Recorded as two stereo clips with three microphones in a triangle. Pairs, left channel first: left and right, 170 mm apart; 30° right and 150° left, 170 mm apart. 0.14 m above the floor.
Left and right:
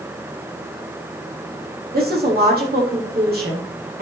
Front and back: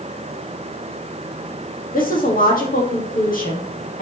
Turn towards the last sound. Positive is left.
turn(degrees=-65)